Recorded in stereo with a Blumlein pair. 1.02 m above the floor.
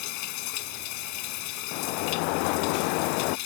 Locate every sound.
0.0 s running water: 45° left
1.7 s a sliding door: 45° left